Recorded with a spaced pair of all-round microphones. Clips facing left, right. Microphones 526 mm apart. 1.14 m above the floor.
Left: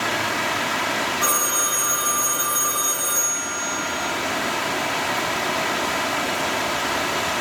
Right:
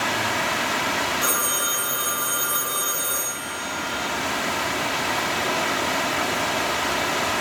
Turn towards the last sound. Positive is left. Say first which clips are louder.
# left 1 dB
turn(degrees=30)  # may be behind; listen again after turning